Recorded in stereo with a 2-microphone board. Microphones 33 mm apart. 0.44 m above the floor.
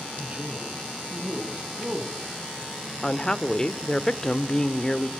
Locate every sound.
0.2 s a man speaking: 45° right (ahead or behind), 6 m; by 2.2 s 30° right (ahead or behind), 5.5 m
3.0 s a woman speaking: 20° left (ahead or behind), 1.1 m